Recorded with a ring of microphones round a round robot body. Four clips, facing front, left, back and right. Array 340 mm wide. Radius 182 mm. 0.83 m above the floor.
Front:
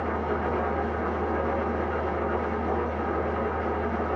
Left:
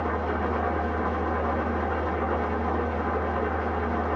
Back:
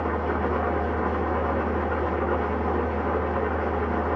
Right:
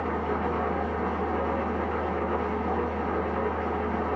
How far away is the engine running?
About 0.8 m.